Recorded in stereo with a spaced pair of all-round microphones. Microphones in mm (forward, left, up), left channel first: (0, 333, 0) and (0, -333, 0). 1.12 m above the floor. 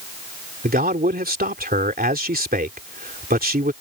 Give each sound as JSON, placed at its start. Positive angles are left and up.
{"t": 0.6, "sound": "a man speaking", "side_deg": -10}